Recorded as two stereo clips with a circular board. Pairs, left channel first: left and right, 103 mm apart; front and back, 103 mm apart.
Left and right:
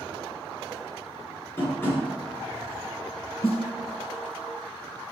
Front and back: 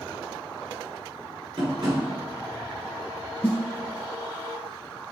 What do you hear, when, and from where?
1.6 s tapping: 150° left, 3 m
3.4 s a snare drum: 75° left, 2 m